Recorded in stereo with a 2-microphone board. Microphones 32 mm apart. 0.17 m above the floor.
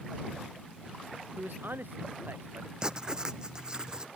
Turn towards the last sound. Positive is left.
turn(degrees=-25)  # may be behind; listen again after turning